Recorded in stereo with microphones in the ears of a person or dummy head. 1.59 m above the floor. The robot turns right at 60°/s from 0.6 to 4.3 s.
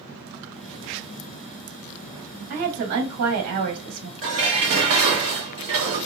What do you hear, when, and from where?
2.5 s a woman speaking: 150° right, 0.9 m; by 4.1 s 55° right, 0.9 m
4.2 s dishes clattering: 45° right (ahead or behind), 0.9 m